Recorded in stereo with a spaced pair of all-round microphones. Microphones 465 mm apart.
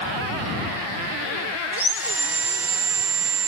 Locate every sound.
1.7 s sawing: 55° right (ahead or behind)